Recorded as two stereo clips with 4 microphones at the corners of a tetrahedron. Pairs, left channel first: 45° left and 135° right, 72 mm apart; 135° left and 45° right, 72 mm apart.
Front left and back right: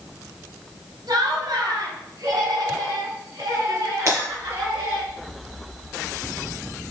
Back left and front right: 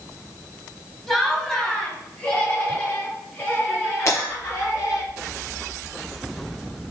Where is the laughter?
140° right, 3 m; by 5.0 s 175° right, 5.5 m.